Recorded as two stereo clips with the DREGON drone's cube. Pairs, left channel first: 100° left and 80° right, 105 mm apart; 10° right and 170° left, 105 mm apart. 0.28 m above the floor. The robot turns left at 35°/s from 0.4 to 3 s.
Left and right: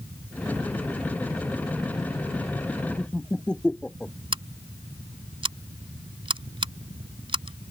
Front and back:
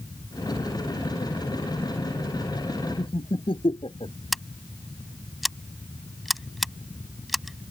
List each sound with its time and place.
3.0 s laughter: 20° left
4.3 s scissors: 100° right